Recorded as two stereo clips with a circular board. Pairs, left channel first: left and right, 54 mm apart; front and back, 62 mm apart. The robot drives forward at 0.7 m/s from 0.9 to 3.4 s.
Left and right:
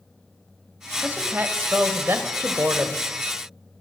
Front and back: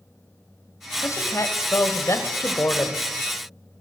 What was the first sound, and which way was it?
A woman speaking, 30° right.